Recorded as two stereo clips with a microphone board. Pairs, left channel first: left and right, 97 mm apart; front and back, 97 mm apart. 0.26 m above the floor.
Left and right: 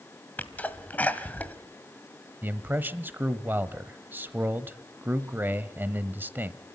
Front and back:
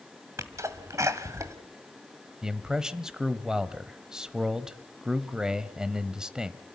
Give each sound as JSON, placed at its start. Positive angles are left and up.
{"t": 0.4, "sound": "a sneeze", "azimuth_deg": 150, "distance_m": 1.7}
{"t": 2.4, "sound": "a man speaking", "azimuth_deg": -110, "distance_m": 0.9}